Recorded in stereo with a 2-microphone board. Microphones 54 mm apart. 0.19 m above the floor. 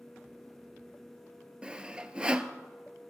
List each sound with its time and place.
1.6 s sawing: 20° right (ahead or behind), 0.8 m